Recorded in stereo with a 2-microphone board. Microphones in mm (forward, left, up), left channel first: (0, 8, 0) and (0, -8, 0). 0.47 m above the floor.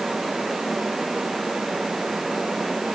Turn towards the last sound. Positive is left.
No sound to turn to.